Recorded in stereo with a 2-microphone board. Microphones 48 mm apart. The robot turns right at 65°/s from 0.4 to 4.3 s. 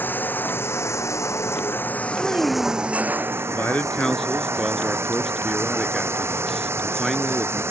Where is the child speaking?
60° right; by 3.2 s 5° left.